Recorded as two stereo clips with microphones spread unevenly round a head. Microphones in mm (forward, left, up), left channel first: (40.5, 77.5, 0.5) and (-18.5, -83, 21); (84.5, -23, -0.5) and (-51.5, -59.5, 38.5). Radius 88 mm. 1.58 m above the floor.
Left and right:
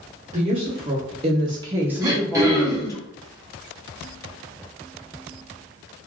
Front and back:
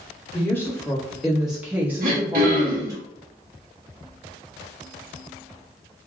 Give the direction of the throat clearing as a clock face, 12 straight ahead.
6 o'clock.